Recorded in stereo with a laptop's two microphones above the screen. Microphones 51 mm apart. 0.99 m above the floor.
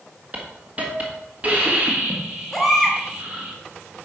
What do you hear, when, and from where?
0.3 s a hiss: 30° right (ahead or behind), 1.6 m
2.5 s a baby crying: 5° right (ahead or behind), 1.8 m